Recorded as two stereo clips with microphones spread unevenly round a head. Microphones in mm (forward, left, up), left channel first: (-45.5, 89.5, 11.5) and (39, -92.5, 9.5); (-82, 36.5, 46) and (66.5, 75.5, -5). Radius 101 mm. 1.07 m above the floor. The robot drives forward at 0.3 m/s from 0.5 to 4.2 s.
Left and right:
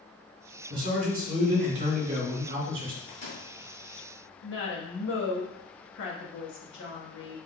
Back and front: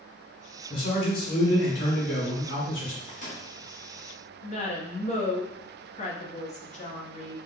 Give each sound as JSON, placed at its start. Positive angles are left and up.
{"t": 0.7, "sound": "a man speaking", "azimuth_deg": -110, "distance_m": 1.6}
{"t": 3.1, "sound": "a microwave", "azimuth_deg": 155, "distance_m": 2.0}
{"t": 4.4, "sound": "a woman speaking", "azimuth_deg": 150, "distance_m": 1.3}